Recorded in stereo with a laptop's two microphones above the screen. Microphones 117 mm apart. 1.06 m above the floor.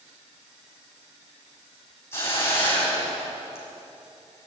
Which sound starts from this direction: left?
A hiss, at 2.1 s.